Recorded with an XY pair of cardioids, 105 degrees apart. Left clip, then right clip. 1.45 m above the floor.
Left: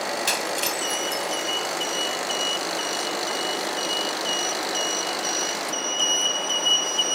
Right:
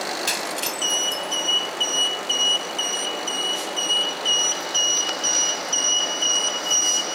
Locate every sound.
0.3 s breaking glass: straight ahead